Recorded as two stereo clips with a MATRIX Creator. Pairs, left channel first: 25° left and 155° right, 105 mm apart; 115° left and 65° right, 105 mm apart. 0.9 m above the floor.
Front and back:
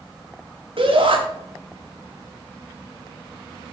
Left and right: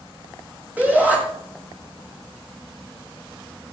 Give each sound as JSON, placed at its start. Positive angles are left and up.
{"t": 0.8, "sound": "a shout", "azimuth_deg": -140, "distance_m": 6.0}